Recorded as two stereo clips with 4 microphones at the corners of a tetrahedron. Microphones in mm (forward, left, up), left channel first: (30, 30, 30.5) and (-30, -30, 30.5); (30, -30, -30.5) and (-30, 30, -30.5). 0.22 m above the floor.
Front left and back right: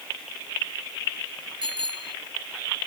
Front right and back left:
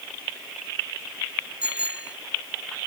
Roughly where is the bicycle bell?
Behind right.